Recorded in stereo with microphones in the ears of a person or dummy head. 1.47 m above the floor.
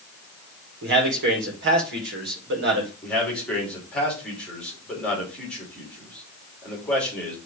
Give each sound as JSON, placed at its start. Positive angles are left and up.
{"t": 0.8, "sound": "a man speaking", "side_deg": -60, "distance_m": 2.5}
{"t": 3.0, "sound": "a man speaking", "side_deg": 5, "distance_m": 3.5}